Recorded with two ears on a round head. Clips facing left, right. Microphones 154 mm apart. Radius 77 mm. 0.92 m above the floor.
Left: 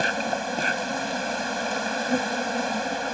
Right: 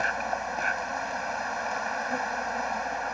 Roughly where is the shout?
I don't hear a shout.